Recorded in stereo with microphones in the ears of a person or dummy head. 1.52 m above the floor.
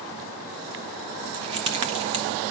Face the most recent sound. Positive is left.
turn(degrees=-35)  # may be behind; listen again after turning